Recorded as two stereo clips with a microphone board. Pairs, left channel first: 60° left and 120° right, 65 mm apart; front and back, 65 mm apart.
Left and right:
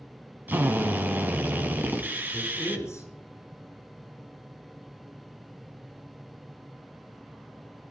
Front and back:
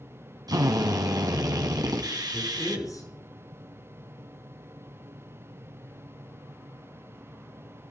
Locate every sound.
0.5 s a drill: straight behind, 2 m
2.3 s a man speaking: 20° left, 6.5 m